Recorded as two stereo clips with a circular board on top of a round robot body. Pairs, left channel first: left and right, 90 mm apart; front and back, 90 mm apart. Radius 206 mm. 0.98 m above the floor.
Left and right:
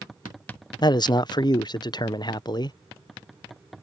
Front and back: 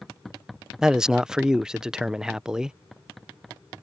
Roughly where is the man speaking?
Left.